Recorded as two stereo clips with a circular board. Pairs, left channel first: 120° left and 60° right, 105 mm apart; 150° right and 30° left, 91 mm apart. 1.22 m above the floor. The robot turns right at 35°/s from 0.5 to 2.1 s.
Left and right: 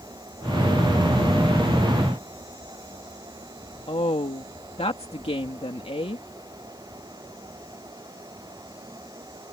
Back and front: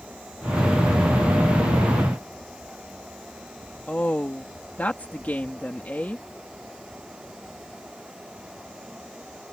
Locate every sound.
3.9 s a woman speaking: 140° left